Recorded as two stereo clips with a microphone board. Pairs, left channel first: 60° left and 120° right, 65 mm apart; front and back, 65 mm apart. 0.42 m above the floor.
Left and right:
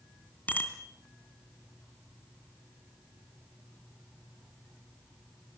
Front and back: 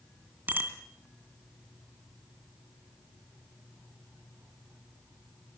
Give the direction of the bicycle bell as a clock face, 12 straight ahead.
8 o'clock.